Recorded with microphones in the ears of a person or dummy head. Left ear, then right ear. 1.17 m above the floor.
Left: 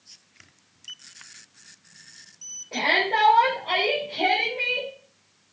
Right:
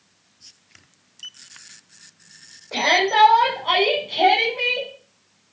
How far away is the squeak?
I don't hear a squeak.